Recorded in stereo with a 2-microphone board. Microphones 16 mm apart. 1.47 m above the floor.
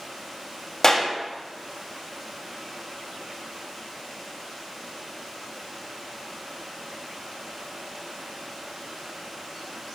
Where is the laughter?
I don't hear laughter.